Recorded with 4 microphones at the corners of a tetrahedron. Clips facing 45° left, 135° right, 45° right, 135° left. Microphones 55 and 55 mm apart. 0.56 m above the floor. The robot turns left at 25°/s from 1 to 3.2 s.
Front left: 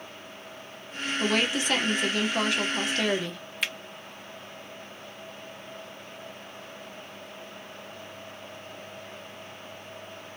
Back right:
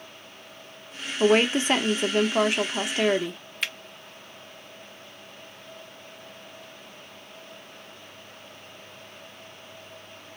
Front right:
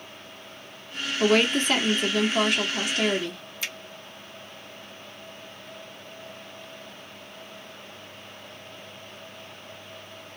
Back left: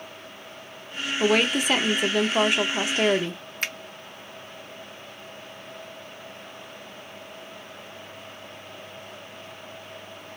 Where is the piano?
No piano in this recording.